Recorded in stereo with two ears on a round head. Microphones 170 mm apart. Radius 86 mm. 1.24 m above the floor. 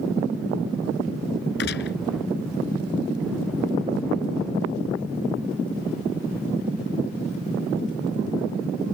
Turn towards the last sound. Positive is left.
turn(degrees=60)  # may be behind; listen again after turning